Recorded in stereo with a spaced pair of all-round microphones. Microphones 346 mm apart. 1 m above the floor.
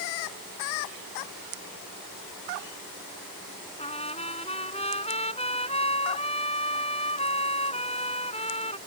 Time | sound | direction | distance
3.8 | a trumpet | 15° left (ahead or behind) | ?